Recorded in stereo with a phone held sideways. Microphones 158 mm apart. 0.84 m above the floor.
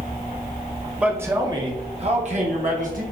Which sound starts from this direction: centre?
A man speaking, at 1.0 s.